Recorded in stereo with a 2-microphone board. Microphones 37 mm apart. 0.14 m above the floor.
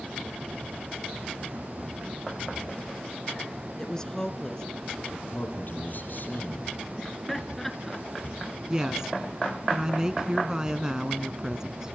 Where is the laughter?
5° left (ahead or behind), 2 m.